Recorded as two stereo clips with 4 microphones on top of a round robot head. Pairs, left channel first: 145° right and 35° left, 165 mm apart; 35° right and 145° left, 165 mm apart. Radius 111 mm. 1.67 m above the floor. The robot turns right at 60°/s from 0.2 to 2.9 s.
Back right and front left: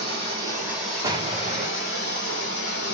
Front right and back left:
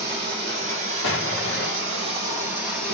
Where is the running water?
80° left, 1.6 m; by 2.9 s 115° right, 1.6 m.